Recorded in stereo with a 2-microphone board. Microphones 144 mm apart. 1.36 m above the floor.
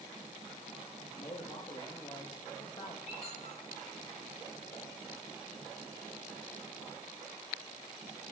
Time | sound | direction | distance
1.0 | a man speaking | 30° left (ahead or behind) | 2.5 m
3.1 | a squeak | 45° left (ahead or behind) | 5 m